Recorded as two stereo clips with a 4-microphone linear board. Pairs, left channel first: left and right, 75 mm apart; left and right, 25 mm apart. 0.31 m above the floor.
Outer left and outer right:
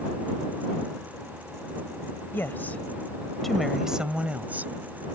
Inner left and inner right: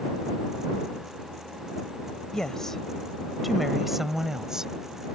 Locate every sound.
2.3 s a woman speaking: 30° left (ahead or behind); by 4.7 s 25° right (ahead or behind)